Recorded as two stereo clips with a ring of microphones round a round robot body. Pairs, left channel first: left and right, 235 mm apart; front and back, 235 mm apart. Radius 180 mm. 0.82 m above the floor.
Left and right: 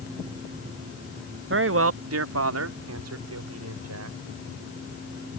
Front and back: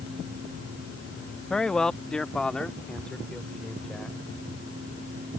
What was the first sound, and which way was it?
A man speaking, 85° right.